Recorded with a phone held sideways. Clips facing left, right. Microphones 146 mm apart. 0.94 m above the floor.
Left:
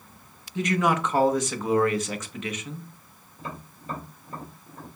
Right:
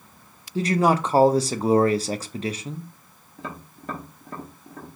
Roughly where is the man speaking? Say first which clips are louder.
Right 4 dB; right.